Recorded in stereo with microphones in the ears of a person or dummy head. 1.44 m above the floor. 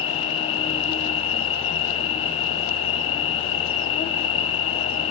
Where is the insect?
30° left (ahead or behind), 1.2 m.